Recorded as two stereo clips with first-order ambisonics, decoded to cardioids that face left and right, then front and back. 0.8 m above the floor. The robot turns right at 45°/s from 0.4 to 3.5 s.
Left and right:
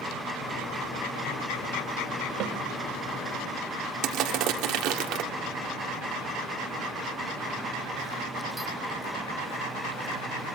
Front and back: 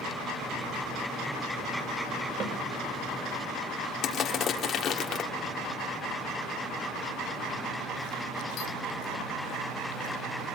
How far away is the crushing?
About 1.6 m.